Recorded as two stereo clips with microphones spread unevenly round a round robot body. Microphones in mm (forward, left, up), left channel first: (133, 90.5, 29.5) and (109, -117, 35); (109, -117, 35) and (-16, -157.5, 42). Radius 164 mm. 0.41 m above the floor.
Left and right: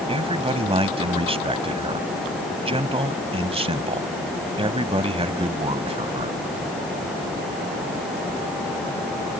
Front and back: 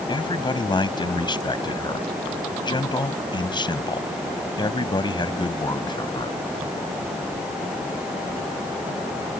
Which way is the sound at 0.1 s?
35° right.